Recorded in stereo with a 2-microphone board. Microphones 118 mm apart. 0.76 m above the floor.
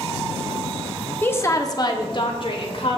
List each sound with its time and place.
1.2 s a woman speaking: 20° left (ahead or behind), 1.0 m; by 3.0 s 55° left (ahead or behind), 2.5 m